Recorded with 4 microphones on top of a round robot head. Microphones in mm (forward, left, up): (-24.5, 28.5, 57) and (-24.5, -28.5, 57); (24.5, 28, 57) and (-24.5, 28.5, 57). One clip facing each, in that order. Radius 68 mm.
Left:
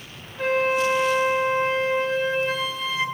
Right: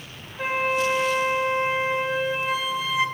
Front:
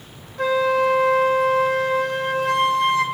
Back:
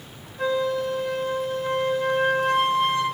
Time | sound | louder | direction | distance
0.4 | a flute | left 2 dB, front 5 dB | 5° right | 0.9 m